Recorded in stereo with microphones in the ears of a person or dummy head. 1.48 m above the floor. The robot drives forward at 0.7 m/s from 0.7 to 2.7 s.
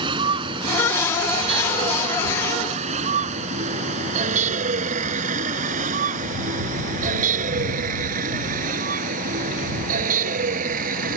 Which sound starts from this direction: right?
A vehicle, at 0.0 s.